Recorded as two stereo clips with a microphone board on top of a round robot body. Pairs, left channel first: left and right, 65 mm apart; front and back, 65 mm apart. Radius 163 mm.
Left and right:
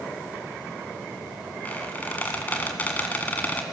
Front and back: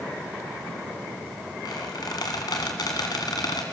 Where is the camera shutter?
No camera shutter in this recording.